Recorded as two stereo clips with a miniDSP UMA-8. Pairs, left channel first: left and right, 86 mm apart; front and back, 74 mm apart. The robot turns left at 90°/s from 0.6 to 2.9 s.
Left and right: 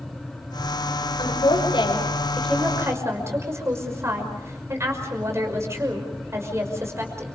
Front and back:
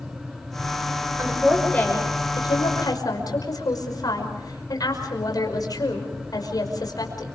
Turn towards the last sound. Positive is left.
turn(degrees=-35)